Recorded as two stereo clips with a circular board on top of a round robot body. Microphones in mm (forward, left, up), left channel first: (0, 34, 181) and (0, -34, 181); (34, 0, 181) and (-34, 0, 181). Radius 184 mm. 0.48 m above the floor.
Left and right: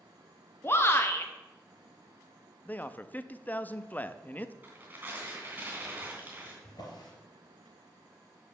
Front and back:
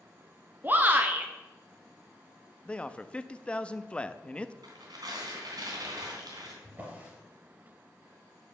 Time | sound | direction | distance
0.6 | a shout | 125° left | 1.1 m
2.6 | a man speaking | 55° left | 0.7 m
4.6 | tearing paper | 155° right | 3 m
6.6 | a drawer | 115° left | 3 m